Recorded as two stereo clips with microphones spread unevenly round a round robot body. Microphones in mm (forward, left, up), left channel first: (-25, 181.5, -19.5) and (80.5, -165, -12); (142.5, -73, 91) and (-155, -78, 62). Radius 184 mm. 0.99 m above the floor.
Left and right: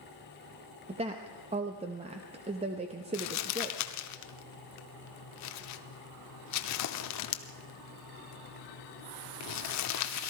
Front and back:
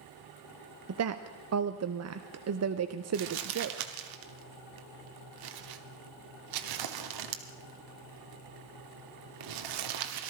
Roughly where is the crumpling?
Behind left.